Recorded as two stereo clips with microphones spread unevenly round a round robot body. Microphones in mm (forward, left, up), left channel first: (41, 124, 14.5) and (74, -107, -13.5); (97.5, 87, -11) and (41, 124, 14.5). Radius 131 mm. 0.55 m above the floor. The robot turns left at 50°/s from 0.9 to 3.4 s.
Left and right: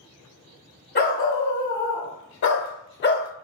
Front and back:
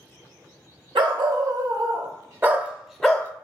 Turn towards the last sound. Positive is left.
turn(degrees=35)